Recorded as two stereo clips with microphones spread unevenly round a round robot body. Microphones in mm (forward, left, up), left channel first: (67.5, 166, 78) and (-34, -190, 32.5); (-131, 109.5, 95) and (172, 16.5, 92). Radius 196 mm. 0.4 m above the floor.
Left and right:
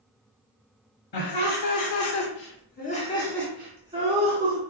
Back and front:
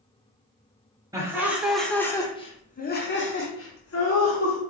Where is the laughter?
60° left, 1.5 m; by 4.6 s 165° right, 1.6 m.